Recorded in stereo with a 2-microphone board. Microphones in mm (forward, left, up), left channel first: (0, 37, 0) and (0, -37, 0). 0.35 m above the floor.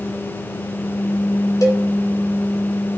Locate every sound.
1.6 s a cowbell: 50° left (ahead or behind), 1.6 m